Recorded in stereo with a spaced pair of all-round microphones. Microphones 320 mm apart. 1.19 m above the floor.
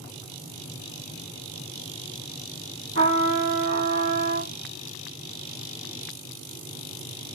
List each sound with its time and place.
3.0 s a trumpet: 40° right (ahead or behind), 2.5 m